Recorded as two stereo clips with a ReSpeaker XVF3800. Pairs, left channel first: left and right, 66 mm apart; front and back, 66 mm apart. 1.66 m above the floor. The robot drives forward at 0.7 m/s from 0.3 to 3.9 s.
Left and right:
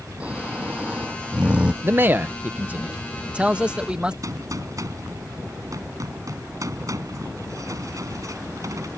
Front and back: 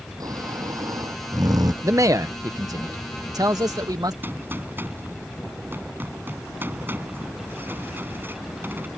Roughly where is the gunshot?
Behind right.